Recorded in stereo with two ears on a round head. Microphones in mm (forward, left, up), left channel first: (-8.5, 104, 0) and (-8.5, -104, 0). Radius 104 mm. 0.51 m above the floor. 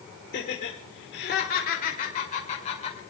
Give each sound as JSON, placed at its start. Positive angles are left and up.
{"t": 0.3, "sound": "laughter", "side_deg": 50, "distance_m": 2.0}